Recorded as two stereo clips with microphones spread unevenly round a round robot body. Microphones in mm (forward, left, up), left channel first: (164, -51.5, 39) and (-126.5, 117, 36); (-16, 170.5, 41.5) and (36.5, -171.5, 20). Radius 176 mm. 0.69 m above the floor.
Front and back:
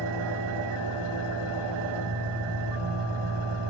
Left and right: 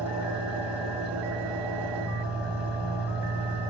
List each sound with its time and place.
0.0 s an engine running: 165° right, 8.5 m